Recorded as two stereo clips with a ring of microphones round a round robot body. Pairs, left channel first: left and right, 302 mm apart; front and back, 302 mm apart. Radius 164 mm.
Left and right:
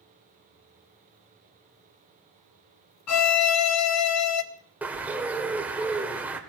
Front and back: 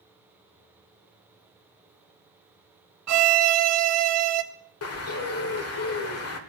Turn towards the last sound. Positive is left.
turn(degrees=-5)